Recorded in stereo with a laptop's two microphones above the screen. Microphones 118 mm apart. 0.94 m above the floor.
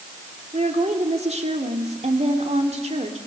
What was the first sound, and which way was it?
A woman speaking, 65° right (ahead or behind).